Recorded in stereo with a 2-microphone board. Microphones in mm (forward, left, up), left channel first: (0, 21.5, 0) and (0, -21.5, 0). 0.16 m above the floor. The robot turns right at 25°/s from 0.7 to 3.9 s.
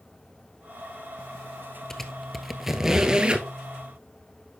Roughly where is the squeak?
Centre.